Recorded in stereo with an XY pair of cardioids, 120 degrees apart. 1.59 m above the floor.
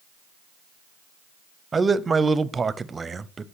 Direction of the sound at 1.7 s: 25° right.